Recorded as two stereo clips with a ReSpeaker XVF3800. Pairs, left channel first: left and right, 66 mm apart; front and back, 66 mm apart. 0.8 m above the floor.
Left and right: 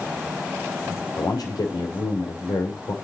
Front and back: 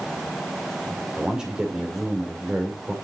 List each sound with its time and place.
1.2 s a man speaking: 100° left, 2.5 m